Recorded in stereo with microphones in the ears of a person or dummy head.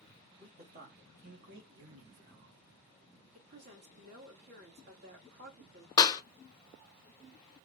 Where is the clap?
20° left (ahead or behind), 0.5 m.